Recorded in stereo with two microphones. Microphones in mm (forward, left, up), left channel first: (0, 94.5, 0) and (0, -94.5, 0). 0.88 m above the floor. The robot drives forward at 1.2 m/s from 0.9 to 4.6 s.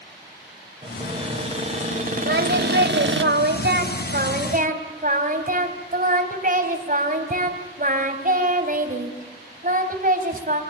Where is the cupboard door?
25° right (ahead or behind), 3.5 m; by 3.2 s 75° right (ahead or behind), 1.6 m.